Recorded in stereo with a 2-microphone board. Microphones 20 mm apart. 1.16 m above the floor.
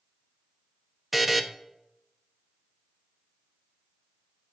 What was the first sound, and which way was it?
A buzzer, 10° right (ahead or behind).